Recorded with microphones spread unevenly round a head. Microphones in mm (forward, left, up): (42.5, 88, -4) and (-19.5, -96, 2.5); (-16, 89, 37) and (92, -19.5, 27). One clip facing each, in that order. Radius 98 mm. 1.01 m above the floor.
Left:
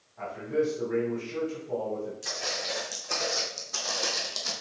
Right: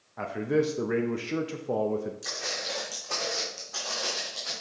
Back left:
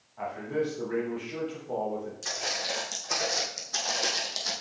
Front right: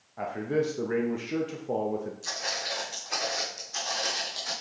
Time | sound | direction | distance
0.2 | a man speaking | 95° right | 0.7 m
2.2 | footsteps | 160° left | 3.5 m